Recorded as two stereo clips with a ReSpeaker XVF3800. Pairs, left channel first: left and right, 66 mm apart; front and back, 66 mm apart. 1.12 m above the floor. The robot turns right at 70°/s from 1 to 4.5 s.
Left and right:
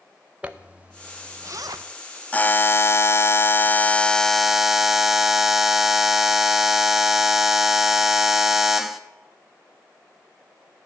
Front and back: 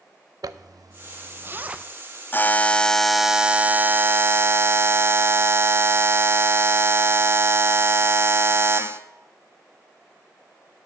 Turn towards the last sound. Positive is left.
turn(degrees=-175)